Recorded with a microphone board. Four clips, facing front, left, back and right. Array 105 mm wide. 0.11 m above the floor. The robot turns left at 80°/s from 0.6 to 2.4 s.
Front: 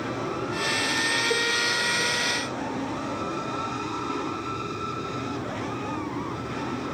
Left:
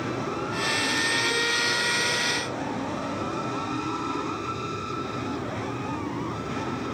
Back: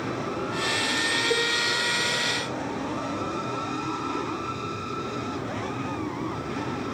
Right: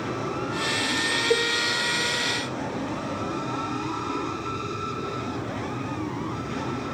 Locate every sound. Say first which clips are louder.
1.3 s a cowbell: right 5 dB, back 2 dB; 95° right, 2.5 m; by 1.5 s 115° right, 2.5 m